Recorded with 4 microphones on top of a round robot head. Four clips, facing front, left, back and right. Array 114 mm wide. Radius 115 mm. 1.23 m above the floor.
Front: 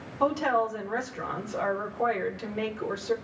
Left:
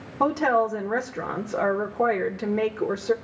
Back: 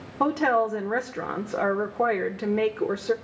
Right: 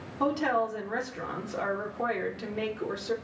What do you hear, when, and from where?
0.2 s a woman speaking: 140° left, 1.4 m